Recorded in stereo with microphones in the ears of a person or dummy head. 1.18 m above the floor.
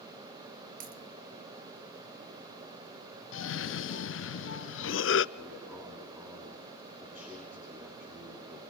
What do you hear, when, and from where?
0.8 s a dropped coin: 45° right (ahead or behind), 2.0 m
3.3 s a cough: 60° left (ahead or behind), 0.7 m
5.3 s a man speaking: 15° right (ahead or behind), 9.5 m